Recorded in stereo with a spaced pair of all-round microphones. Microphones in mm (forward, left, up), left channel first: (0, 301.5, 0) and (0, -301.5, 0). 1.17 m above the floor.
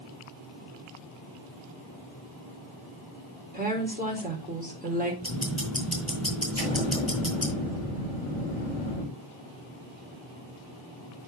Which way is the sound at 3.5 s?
15° right (ahead or behind).